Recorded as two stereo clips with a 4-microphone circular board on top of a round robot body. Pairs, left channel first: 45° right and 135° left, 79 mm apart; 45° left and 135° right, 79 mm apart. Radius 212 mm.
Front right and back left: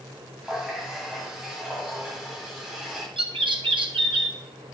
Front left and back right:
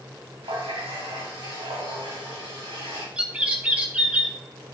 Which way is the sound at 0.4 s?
145° right.